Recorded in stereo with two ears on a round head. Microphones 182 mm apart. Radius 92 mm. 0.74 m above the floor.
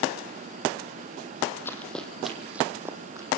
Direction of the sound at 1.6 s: 10° left (ahead or behind).